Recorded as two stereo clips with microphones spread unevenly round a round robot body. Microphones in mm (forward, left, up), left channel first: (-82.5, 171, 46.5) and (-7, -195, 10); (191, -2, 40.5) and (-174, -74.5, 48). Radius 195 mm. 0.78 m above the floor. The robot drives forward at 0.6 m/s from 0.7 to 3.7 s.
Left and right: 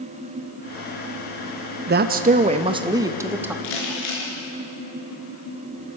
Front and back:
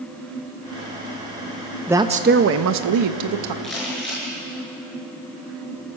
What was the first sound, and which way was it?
A woman speaking, 85° right.